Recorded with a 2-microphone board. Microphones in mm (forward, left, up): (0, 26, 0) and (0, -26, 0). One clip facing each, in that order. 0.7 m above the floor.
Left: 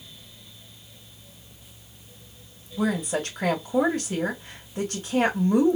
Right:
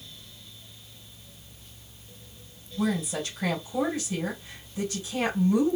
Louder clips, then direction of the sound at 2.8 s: Left 3 dB; 60° left (ahead or behind).